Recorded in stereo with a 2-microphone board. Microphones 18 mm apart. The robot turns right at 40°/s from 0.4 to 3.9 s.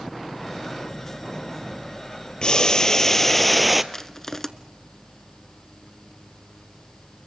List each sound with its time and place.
2.4 s boiling: 130° left, 0.8 m; by 3.8 s 175° right, 0.8 m
3.9 s crushing: 25° left (ahead or behind), 0.9 m